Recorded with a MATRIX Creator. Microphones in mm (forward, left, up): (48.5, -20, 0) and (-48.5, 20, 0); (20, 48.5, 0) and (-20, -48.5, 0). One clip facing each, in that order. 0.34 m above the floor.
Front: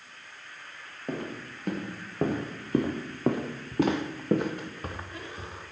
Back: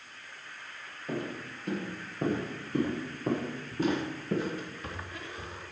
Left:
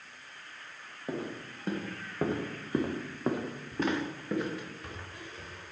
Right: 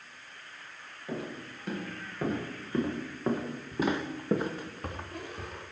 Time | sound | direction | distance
1.1 | footsteps | 15° left | 3 m